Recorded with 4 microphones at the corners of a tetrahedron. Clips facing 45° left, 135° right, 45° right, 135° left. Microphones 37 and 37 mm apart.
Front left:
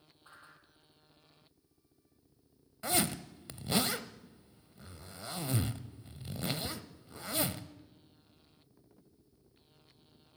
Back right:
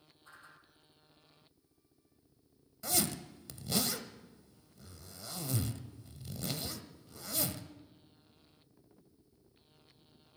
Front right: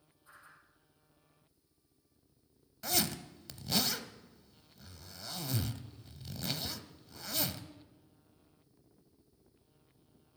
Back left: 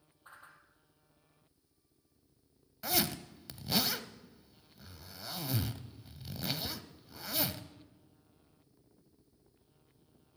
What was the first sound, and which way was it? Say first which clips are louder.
A whoosh: even, back left 3 dB; 105° left.